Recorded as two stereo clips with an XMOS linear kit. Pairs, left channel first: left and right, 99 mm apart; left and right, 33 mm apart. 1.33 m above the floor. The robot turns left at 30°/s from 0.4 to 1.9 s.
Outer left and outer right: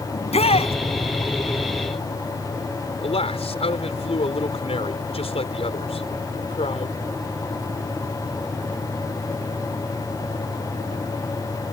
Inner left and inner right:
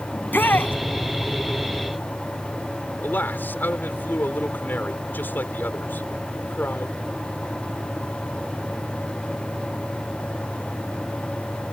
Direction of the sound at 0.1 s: 85° left.